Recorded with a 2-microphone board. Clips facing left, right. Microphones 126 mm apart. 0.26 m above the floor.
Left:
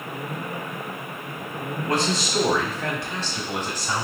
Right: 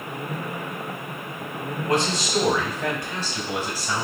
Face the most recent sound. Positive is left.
turn(degrees=0)  # may be behind; listen again after turning